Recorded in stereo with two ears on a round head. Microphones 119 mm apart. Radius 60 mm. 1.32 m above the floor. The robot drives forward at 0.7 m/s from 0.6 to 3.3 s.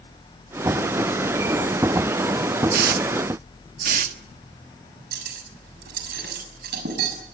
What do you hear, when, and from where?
2.7 s a hiss: 70° right (ahead or behind), 1.4 m
5.1 s cutlery clinking: 85° right, 6.5 m